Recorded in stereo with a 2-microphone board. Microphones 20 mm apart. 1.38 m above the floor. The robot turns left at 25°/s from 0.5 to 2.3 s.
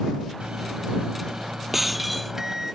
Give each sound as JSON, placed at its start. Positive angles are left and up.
{"t": 0.4, "sound": "a microwave", "azimuth_deg": -110}
{"t": 1.7, "sound": "breaking glass", "side_deg": -10}